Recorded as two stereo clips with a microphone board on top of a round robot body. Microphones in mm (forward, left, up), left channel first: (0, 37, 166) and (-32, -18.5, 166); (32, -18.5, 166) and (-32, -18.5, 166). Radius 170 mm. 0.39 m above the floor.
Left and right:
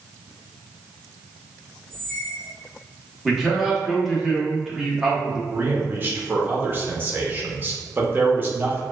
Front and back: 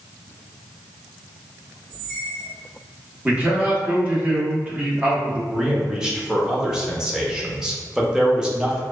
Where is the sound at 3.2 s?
160° left, 1.1 m.